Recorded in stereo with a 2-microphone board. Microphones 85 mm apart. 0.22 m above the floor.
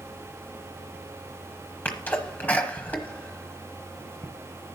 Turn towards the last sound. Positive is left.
turn(degrees=20)  # may be behind; listen again after turning